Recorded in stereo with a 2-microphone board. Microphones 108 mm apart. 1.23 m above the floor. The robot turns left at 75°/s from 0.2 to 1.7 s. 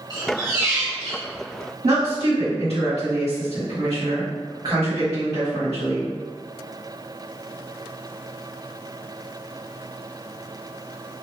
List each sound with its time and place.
0.1 s a squeak: 115° right, 1.3 m; by 1.3 s 170° left, 1.3 m
1.8 s a woman speaking: 65° right (ahead or behind), 1.6 m